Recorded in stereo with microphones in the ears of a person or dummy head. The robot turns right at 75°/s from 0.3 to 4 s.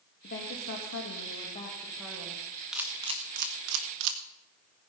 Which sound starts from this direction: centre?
A camera shutter, at 2.7 s.